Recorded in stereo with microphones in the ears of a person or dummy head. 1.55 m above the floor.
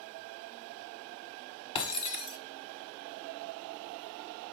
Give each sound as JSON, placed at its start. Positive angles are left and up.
{"t": 1.8, "sound": "breaking glass", "side_deg": 30, "distance_m": 2.0}